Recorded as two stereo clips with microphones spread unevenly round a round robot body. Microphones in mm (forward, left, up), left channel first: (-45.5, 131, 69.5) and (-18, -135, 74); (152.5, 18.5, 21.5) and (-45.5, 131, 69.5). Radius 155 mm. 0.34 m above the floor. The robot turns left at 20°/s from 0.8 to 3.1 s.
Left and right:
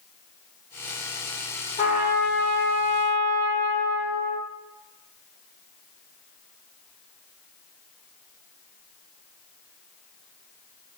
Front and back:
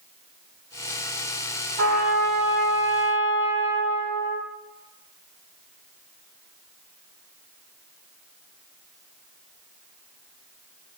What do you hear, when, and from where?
1.8 s a trumpet: 160° left, 1.0 m; by 4.4 s 135° left, 1.0 m